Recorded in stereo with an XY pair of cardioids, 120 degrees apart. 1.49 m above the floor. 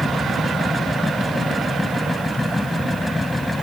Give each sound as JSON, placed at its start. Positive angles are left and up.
{"t": 0.0, "sound": "a machine running", "azimuth_deg": 10}